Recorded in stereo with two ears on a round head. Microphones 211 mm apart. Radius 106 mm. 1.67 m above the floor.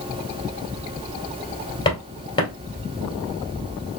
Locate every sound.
1.9 s footsteps: 20° left (ahead or behind), 1.7 m